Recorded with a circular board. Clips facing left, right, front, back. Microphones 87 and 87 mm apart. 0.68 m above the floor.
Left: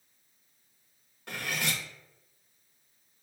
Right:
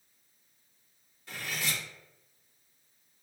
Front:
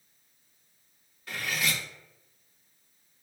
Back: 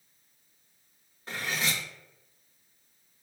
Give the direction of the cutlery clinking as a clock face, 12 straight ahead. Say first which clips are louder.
Left 3 dB, even; 8 o'clock.